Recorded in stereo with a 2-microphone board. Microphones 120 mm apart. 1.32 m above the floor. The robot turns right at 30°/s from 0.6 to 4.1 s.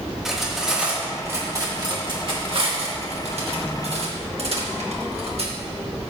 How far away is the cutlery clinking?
About 1.4 m.